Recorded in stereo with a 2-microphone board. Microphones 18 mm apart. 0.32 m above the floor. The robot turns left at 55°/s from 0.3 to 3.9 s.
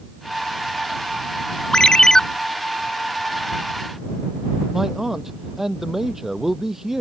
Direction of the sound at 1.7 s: 50° left (ahead or behind).